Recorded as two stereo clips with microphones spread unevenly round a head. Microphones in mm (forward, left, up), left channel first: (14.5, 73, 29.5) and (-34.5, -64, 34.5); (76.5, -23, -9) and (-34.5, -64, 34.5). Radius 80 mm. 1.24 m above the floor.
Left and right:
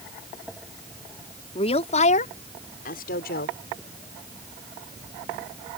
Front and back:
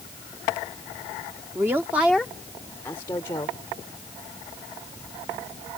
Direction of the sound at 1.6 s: 125° left.